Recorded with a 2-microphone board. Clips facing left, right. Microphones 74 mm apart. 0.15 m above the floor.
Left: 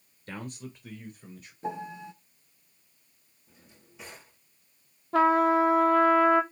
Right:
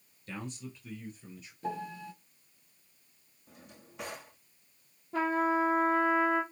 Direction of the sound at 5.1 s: 85° left.